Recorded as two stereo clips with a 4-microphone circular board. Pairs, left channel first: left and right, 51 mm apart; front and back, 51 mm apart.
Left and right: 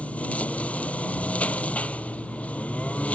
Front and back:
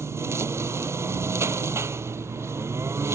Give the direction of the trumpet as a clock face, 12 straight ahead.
I don't hear a trumpet.